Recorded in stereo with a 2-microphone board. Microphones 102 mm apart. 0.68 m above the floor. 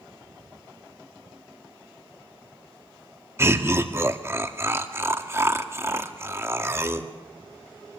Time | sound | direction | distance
3.4 | laughter | 25° right (ahead or behind) | 1.3 m